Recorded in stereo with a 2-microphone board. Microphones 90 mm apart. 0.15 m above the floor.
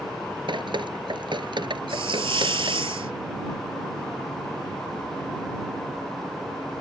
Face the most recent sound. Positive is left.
turn(degrees=-80)